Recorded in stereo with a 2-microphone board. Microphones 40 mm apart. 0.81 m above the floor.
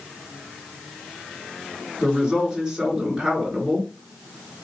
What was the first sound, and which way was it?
A woman speaking, 20° right (ahead or behind).